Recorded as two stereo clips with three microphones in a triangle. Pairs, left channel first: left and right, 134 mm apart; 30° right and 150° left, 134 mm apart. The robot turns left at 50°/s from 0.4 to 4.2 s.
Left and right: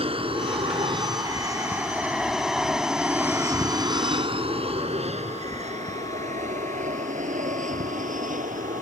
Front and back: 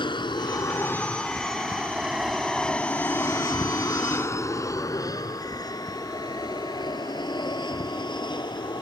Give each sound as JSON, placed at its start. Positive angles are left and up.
{"t": 0.0, "sound": "an aircraft", "azimuth_deg": -70}